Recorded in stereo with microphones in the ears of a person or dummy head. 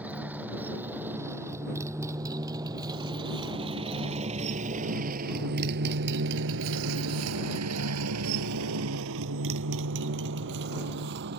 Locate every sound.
0.0 s a motorcycle: 5° right (ahead or behind); by 11.4 s 55° right (ahead or behind)